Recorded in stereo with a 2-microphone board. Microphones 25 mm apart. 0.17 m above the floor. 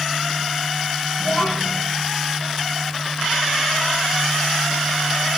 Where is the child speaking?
25° left (ahead or behind), 5.5 m.